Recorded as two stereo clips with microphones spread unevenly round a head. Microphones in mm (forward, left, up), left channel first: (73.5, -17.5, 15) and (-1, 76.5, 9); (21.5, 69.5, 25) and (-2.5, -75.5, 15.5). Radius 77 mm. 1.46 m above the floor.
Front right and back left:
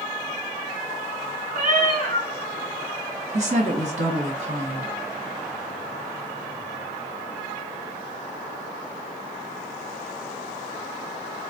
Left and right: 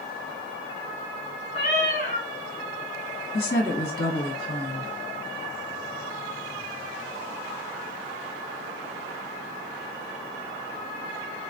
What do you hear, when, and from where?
1.5 s a cat meowing: 125° left, 1.8 m
3.3 s a woman speaking: 115° left, 1.3 m